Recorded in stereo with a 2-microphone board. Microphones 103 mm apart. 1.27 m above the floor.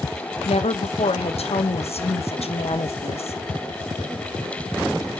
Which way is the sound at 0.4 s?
80° left.